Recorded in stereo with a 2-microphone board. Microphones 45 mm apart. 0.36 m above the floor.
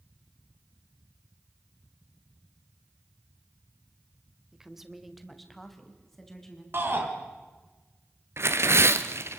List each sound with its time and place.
4.5 s a woman speaking: 15° right (ahead or behind), 1.5 m; by 6.6 s 10° left (ahead or behind), 4 m
6.7 s a shout: 55° right (ahead or behind), 4 m
8.4 s tearing paper: 70° right (ahead or behind), 1.2 m